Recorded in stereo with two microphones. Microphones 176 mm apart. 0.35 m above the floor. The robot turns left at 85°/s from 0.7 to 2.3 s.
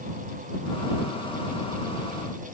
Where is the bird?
No bird in this recording.